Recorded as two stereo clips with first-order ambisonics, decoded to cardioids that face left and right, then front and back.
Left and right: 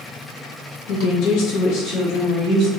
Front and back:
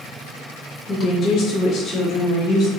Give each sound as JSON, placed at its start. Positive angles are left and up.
{"t": 0.9, "sound": "a woman speaking", "azimuth_deg": 70, "distance_m": 0.8}